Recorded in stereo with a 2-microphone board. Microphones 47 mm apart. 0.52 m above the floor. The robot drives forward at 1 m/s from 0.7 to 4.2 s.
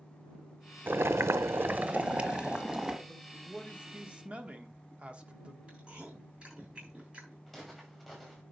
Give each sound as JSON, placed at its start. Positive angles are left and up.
{"t": 0.9, "sound": "boiling", "side_deg": -50, "distance_m": 0.6}
{"t": 3.1, "sound": "a man speaking", "side_deg": -20, "distance_m": 1.8}
{"t": 5.7, "sound": "chewing", "side_deg": -25, "distance_m": 7.0}
{"t": 7.5, "sound": "footsteps", "side_deg": -5, "distance_m": 5.5}